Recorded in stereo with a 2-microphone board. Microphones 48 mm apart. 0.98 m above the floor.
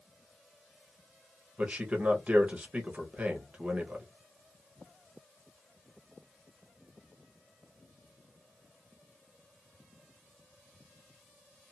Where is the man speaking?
25° right (ahead or behind), 1.0 m.